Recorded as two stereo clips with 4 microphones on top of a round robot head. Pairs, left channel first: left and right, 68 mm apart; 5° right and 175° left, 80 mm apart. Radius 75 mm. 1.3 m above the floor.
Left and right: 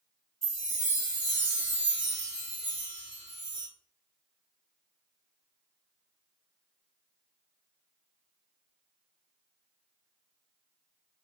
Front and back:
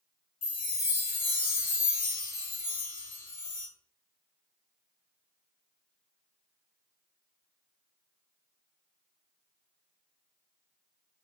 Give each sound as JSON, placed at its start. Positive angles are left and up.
{"t": 0.4, "sound": "a chime", "azimuth_deg": -10, "distance_m": 1.3}